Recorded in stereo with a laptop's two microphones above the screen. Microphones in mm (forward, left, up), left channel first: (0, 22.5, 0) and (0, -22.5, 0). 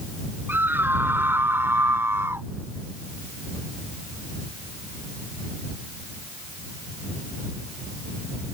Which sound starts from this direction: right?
A scream, at 0.5 s.